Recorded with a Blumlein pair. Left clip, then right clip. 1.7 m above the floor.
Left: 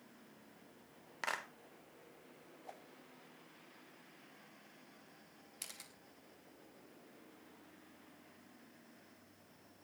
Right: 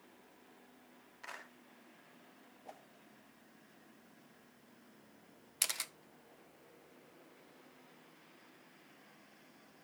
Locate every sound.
1.2 s a clap: 55° left, 1.5 m
2.6 s a whoosh: 5° right, 0.9 m
5.6 s a camera shutter: 55° right, 0.5 m